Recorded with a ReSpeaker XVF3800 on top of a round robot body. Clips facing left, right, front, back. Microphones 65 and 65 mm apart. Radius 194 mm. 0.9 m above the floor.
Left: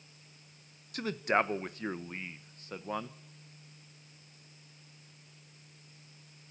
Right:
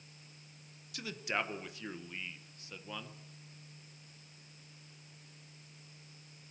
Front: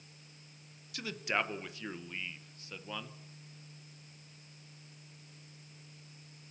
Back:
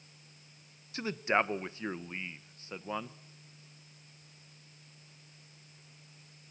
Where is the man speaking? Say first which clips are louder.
Left 8 dB, back 5 dB; 125° left, 1.3 m.